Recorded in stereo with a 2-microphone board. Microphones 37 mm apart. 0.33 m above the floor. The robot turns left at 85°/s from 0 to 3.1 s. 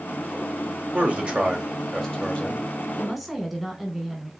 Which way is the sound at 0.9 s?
105° right.